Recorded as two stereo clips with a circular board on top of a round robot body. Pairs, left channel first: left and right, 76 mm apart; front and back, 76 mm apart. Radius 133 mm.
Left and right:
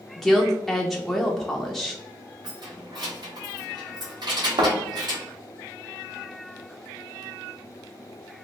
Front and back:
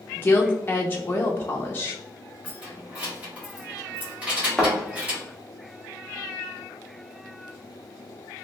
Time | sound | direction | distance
0.2 | a woman speaking | straight ahead | 0.7 m
2.4 | keys jangling | 110° right | 1.5 m
4.6 | a thud | 85° right | 1.0 m